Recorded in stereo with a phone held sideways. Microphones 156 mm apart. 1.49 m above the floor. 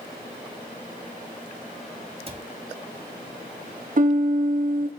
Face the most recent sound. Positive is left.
turn(degrees=-60)  # may be behind; listen again after turning